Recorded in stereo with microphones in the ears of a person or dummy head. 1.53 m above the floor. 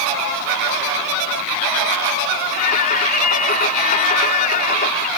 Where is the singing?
40° left (ahead or behind).